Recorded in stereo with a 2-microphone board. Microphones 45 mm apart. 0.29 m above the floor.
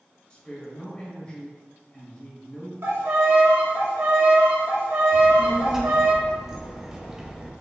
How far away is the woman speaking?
About 0.9 m.